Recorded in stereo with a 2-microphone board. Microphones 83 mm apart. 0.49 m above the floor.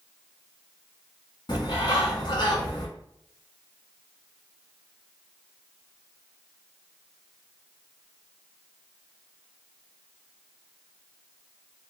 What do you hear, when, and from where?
1.5 s a bird: 65° left (ahead or behind), 1.2 m